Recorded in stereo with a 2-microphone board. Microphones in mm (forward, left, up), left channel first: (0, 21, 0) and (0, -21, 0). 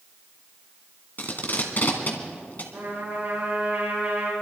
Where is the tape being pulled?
45° left (ahead or behind), 2.0 m.